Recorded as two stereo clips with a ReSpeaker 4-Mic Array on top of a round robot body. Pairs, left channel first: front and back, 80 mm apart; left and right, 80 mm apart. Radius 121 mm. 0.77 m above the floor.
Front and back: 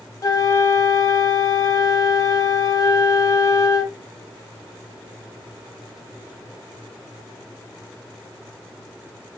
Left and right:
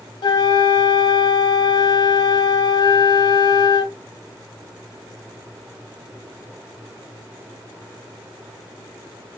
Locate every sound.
0.2 s a flute: 50° left, 0.9 m